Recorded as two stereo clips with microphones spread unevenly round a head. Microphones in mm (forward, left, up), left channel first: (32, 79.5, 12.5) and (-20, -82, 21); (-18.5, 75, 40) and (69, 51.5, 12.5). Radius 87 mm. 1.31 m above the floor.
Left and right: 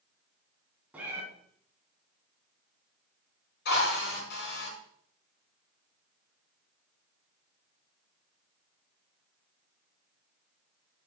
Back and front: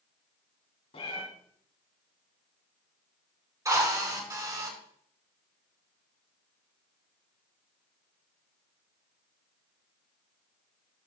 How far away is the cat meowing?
About 3 m.